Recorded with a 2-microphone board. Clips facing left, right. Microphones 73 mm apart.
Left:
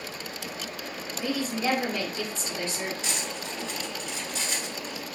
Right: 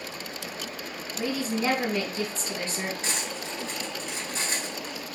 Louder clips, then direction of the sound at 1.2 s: Right 1 dB; 35° right (ahead or behind).